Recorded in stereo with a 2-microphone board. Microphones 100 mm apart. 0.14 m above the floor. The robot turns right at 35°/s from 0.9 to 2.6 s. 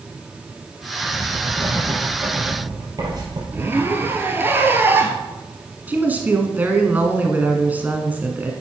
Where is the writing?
10° left (ahead or behind), 4 m; by 3.4 s 40° right (ahead or behind), 4 m.